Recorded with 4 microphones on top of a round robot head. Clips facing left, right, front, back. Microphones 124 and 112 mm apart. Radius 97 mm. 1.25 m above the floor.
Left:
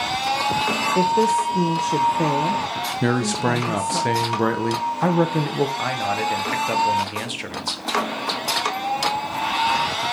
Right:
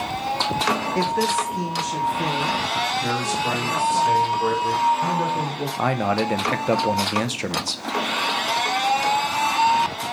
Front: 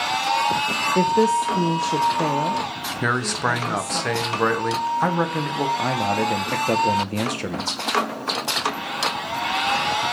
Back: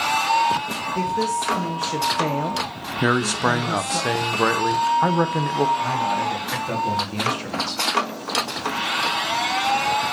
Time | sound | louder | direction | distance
0.9 | a woman speaking | left 7 dB, front 5 dB | 25° left | 0.8 m
3.0 | a man speaking | left 3 dB, back 3 dB | 100° left | 1.0 m
5.8 | a man speaking | right 2 dB, even | 45° right | 1.0 m